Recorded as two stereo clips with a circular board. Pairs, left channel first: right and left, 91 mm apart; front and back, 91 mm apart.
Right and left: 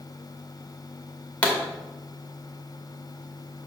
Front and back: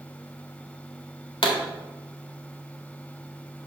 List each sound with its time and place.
1.4 s a pop: 15° right, 2.0 m